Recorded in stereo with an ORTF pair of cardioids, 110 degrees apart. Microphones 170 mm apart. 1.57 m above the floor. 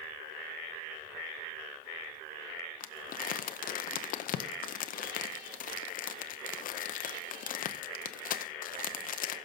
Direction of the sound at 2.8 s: 55° left.